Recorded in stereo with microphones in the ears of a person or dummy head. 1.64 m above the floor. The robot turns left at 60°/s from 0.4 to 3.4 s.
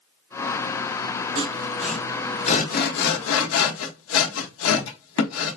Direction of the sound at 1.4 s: 35° right (ahead or behind).